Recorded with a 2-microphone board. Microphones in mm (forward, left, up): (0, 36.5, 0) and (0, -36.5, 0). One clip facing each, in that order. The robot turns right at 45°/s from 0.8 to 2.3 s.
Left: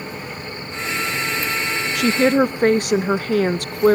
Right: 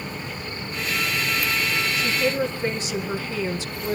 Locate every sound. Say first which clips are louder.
1.9 s a woman speaking: left 10 dB; 70° left (ahead or behind), 0.9 m; by 4.0 s 55° left (ahead or behind), 0.9 m